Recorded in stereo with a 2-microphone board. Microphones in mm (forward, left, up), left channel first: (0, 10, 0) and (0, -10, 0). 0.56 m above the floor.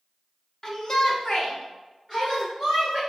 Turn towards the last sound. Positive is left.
turn(degrees=25)  # may be behind; listen again after turning